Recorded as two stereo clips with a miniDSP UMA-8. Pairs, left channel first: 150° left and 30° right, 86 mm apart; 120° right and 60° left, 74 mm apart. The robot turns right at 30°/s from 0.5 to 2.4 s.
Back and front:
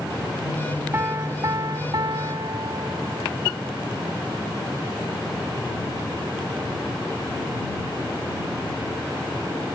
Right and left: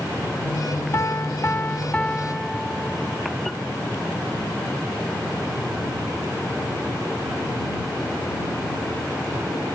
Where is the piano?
80° right; by 3.3 s 40° right.